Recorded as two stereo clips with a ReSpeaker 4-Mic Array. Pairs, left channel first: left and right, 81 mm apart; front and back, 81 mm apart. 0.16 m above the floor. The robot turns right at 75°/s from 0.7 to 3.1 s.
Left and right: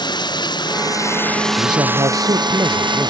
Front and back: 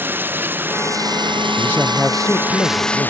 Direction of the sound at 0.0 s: 115° left.